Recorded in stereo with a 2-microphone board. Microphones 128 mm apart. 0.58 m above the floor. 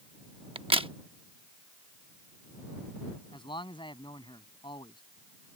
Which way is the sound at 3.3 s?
40° left (ahead or behind).